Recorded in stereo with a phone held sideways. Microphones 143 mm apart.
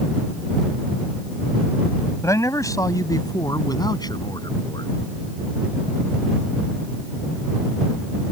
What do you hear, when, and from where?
2.2 s a man speaking: 20° left (ahead or behind); by 4.9 s 30° left (ahead or behind)